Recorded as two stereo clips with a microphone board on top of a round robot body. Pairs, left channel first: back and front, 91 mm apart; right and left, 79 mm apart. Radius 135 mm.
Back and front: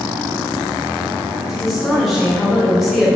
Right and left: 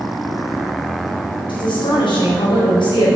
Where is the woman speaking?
100° right, 2.5 m.